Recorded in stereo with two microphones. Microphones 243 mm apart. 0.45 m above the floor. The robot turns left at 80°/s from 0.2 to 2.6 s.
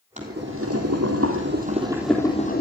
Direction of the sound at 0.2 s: 30° right.